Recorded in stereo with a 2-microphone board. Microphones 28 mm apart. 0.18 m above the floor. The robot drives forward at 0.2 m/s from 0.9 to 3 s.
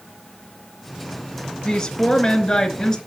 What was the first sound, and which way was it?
A woman speaking, 30° left (ahead or behind).